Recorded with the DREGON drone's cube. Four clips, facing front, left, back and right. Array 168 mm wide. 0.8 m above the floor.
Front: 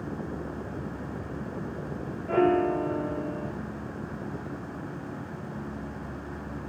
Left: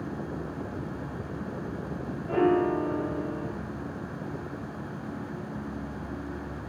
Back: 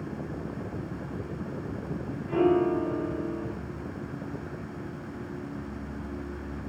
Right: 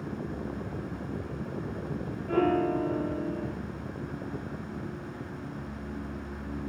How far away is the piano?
About 1.2 m.